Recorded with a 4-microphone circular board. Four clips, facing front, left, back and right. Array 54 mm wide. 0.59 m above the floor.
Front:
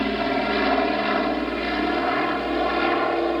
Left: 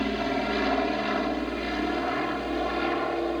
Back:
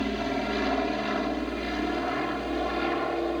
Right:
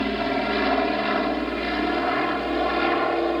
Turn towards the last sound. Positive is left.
turn(degrees=-45)